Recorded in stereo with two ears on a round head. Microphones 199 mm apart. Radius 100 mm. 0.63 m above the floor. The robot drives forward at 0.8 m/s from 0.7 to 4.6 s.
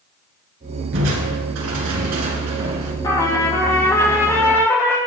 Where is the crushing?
60° right (ahead or behind), 3.5 m; by 2.9 s 90° right, 3 m.